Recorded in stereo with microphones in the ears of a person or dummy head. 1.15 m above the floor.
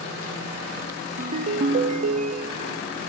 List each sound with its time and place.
1.2 s a ringtone: 40° right (ahead or behind), 0.8 m